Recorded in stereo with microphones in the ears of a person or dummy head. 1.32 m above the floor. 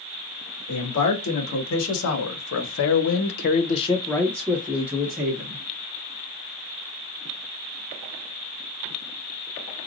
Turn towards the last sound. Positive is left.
turn(degrees=-20)  # may be behind; listen again after turning